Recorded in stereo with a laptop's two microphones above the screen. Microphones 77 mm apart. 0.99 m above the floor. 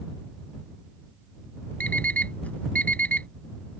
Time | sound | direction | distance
1.8 | an alarm clock | 20° left (ahead or behind) | ?